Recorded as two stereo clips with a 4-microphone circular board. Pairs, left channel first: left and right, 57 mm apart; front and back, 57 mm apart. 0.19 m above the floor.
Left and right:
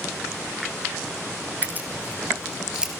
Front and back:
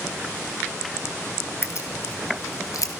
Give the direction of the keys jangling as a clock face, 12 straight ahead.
1 o'clock.